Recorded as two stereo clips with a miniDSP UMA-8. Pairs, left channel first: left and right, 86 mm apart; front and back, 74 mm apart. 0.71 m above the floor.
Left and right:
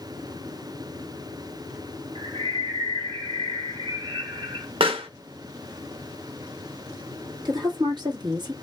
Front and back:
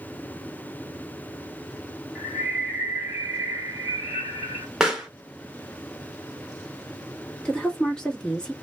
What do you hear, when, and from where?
2.1 s a bird: 100° right, 1.6 m
4.8 s a pop: 95° right, 0.9 m
7.5 s a woman speaking: 75° right, 1.3 m